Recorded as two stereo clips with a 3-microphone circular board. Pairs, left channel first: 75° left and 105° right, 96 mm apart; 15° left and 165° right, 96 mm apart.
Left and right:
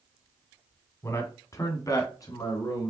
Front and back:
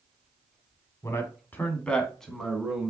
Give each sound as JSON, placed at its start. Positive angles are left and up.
{"t": 1.0, "sound": "a man speaking", "azimuth_deg": 45, "distance_m": 1.1}